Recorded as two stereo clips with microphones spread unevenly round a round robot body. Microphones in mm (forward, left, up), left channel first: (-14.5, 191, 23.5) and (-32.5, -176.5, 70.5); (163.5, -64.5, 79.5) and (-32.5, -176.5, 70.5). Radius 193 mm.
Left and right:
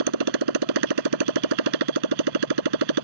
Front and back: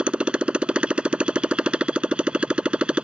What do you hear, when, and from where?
0.0 s a motorcycle: 65° right